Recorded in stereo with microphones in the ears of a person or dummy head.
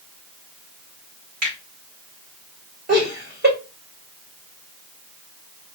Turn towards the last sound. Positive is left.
turn(degrees=-50)  # may be behind; listen again after turning